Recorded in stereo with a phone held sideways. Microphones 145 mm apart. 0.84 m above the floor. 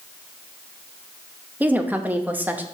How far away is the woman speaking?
About 0.7 m.